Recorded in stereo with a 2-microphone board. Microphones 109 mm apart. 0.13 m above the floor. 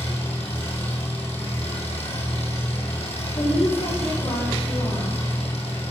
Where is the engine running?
70° left (ahead or behind), 4 m.